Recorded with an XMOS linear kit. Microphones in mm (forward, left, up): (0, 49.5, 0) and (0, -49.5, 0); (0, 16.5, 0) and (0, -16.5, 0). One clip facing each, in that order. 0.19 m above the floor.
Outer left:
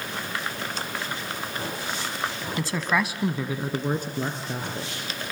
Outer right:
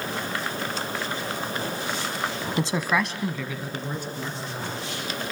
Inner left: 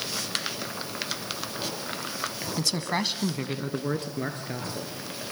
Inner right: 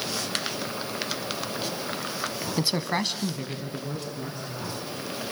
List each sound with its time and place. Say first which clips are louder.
2.6 s a man speaking: outer right 1 dB, inner right 1 dB; 30° right (ahead or behind), 1.2 m; by 5.3 s 65° left (ahead or behind), 4 m